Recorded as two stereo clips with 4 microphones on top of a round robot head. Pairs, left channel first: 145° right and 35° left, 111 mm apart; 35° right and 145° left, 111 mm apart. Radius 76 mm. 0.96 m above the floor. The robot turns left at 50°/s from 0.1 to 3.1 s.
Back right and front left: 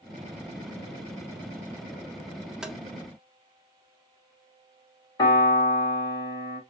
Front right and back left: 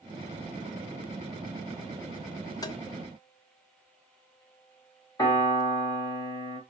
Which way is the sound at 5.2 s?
90° right.